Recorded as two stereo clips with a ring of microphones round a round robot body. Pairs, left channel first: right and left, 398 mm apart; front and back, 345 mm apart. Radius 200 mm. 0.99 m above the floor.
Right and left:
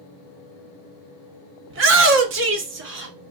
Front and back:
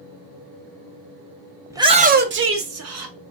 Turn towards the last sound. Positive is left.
turn(degrees=150)